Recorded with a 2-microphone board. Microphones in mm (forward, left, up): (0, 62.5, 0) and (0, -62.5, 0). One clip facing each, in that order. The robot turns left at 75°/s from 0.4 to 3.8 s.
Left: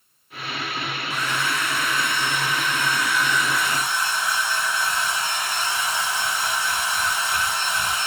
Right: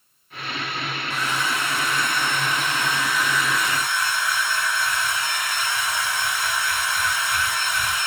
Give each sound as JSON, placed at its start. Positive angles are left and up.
{"t": 1.1, "sound": "a hair dryer", "azimuth_deg": 0, "distance_m": 1.8}